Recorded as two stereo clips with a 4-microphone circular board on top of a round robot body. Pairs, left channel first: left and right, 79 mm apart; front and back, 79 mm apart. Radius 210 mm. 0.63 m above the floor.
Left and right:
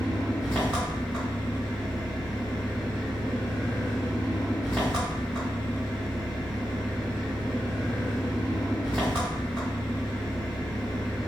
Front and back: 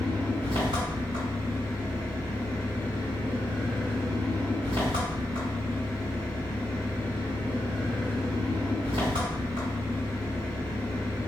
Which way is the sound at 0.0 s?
165° left.